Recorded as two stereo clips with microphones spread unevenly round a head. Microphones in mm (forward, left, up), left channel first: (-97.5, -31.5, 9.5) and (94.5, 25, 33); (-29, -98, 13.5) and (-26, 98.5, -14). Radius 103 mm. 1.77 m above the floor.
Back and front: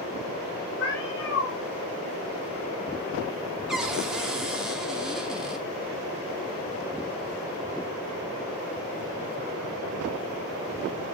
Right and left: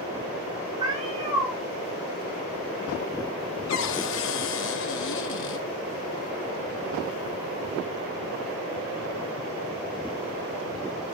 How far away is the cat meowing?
About 4 m.